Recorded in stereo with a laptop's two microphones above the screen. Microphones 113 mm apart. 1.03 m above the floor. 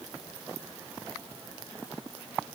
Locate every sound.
Only background noise.